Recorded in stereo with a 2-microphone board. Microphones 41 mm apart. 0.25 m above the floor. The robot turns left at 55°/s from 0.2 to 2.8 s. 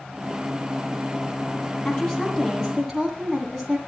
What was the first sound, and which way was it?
A woman speaking, 45° left.